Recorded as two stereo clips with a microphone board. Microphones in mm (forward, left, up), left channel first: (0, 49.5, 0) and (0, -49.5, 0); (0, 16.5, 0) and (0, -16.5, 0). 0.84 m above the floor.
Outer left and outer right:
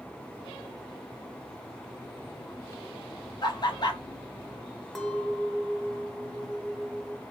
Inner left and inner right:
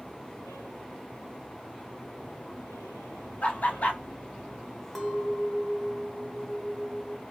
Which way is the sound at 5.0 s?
Centre (ahead or behind).